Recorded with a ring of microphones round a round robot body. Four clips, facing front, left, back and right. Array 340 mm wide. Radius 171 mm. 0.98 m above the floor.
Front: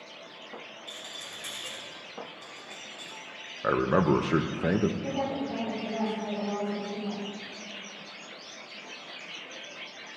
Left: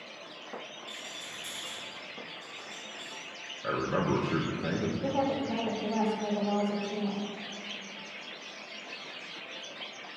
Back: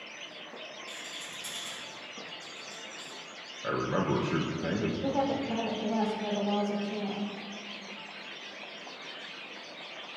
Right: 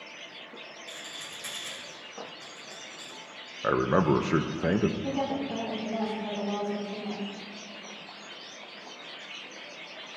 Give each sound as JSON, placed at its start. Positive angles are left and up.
{"t": 0.9, "sound": "a rattle", "azimuth_deg": -60, "distance_m": 2.5}
{"t": 3.6, "sound": "a man speaking", "azimuth_deg": -50, "distance_m": 0.6}
{"t": 5.0, "sound": "a woman speaking", "azimuth_deg": 135, "distance_m": 3.0}